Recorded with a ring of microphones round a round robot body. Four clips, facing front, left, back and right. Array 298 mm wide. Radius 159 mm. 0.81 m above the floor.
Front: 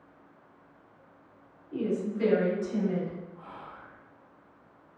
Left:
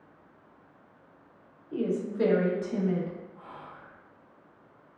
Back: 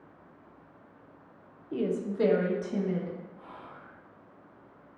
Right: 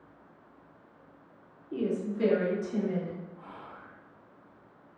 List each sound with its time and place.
1.7 s a woman speaking: 175° right, 0.6 m; by 3.2 s 115° left, 0.9 m
3.4 s whispering: 90° left, 0.8 m